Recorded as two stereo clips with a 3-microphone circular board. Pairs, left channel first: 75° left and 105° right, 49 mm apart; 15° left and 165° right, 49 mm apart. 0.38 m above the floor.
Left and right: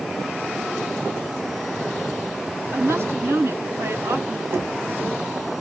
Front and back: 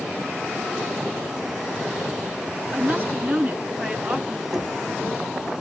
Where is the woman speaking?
110° right, 3 m.